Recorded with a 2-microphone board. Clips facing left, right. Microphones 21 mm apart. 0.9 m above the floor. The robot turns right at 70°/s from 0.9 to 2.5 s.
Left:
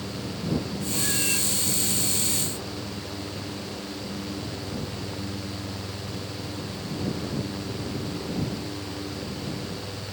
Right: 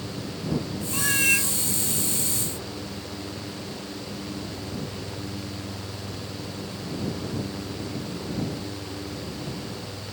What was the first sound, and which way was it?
A cat meowing, 105° right.